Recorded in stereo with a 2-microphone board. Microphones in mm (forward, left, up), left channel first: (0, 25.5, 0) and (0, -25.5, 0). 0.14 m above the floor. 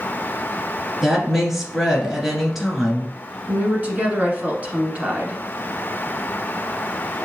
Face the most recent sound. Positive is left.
turn(degrees=-30)  # may be behind; listen again after turning